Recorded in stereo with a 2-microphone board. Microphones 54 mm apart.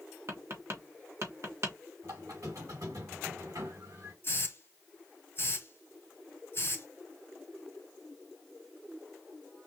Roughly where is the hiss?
Left.